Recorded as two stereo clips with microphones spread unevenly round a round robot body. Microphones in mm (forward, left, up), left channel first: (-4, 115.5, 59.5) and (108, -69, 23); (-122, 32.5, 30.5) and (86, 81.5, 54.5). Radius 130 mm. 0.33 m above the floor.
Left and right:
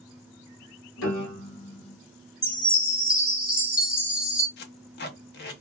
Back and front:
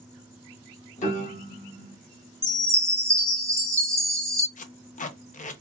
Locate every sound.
1.0 s a piano: 145° left, 1.0 m
2.4 s a chime: 90° left, 1.2 m
4.6 s tape being pulled: 160° left, 0.6 m